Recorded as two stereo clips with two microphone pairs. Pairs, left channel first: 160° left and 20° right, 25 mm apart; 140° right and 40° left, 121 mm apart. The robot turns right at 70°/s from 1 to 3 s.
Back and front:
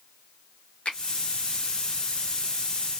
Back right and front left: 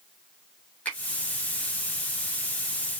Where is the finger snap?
150° left, 1.0 m.